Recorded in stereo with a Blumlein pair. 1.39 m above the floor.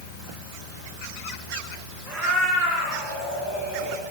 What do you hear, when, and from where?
2.0 s a cat meowing: 5° right, 9.5 m; by 4.0 s 5° left, 11.5 m